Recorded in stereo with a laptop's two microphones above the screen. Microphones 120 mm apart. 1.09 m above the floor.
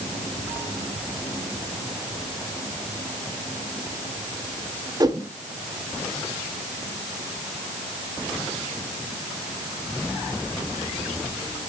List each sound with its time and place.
5.0 s a whoosh: 30° right (ahead or behind), 1.8 m